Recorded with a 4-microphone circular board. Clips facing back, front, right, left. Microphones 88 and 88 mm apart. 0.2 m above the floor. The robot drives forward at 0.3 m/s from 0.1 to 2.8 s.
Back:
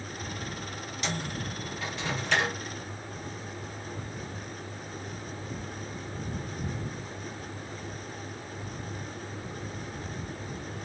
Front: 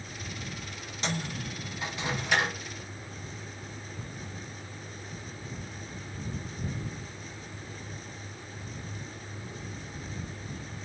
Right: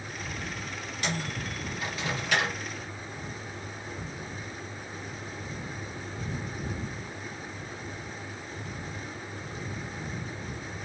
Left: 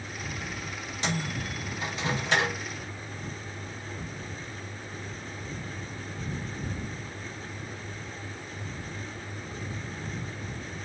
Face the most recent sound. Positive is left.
turn(degrees=85)